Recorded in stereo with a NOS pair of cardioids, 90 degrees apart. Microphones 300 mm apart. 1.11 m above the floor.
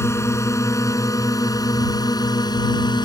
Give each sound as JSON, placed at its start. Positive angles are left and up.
{"t": 0.0, "sound": "a drone", "azimuth_deg": 10}